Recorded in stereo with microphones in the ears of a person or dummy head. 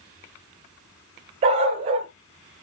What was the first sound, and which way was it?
A dog barking, 35° right (ahead or behind).